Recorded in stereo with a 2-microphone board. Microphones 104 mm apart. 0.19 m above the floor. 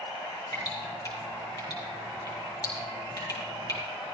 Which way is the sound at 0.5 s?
40° left (ahead or behind).